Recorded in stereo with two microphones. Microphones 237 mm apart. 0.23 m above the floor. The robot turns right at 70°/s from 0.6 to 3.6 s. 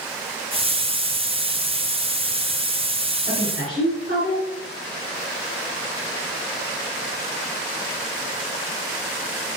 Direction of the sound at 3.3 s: 35° right (ahead or behind).